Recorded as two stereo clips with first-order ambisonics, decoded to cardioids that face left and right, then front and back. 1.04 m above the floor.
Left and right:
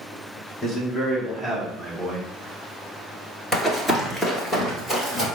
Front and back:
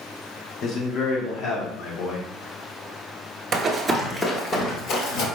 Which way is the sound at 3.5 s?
165° left.